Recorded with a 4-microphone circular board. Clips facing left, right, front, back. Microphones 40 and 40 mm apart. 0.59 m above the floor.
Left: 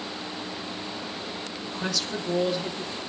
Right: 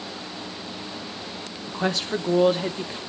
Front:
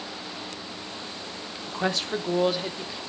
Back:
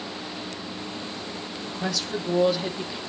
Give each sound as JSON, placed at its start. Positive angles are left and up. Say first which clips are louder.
{"t": 1.7, "sound": "a woman speaking", "louder": "right 6 dB, front 3 dB", "azimuth_deg": -35, "distance_m": 1.1}